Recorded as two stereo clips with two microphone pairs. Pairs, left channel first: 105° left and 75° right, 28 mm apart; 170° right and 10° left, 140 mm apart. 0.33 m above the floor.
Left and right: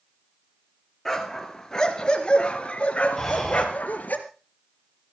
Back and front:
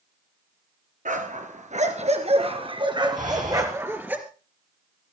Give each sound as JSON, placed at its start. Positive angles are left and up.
{"t": 1.1, "sound": "a dog barking", "azimuth_deg": 25, "distance_m": 2.5}
{"t": 3.2, "sound": "breathing", "azimuth_deg": 25, "distance_m": 5.0}